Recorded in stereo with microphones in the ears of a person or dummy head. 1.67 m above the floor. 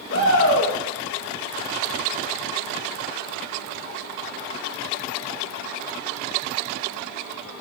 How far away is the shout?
About 3 m.